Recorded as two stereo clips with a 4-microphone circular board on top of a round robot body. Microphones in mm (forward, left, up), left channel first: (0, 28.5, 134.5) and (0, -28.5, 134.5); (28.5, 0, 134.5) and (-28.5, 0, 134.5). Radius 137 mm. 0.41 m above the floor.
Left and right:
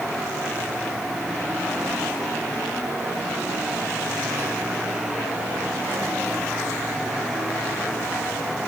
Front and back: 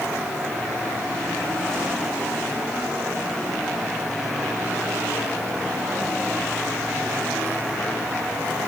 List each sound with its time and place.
Only background noise.